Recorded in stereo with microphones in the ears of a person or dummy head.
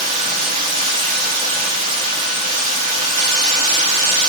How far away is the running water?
About 6 m.